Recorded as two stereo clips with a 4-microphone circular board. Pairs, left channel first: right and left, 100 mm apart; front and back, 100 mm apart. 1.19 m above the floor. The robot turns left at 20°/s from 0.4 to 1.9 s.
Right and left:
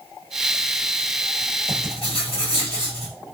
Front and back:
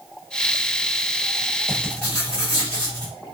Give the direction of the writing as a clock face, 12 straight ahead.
2 o'clock.